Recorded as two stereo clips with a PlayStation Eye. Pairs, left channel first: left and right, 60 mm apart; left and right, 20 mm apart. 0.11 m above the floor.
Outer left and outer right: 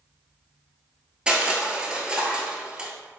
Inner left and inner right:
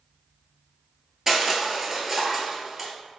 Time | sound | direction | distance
1.3 | crushing | 15° right (ahead or behind) | 0.8 m